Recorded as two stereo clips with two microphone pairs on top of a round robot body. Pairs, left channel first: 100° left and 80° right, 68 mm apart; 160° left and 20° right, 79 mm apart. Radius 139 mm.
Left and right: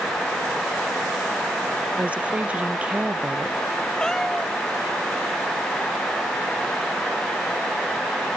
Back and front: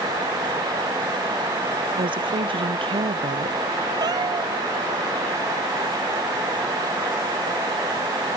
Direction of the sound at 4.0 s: 20° left.